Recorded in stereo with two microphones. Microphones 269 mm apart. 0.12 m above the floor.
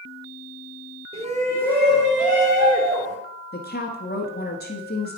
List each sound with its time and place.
1.1 s a shout: 20° right (ahead or behind), 2.0 m; by 3.2 s 40° right (ahead or behind), 2.5 m
3.5 s a woman speaking: 35° left (ahead or behind), 1.5 m